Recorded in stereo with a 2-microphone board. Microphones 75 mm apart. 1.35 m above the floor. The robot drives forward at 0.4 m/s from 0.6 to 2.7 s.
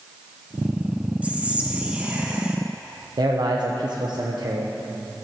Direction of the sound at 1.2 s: 15° right (ahead or behind).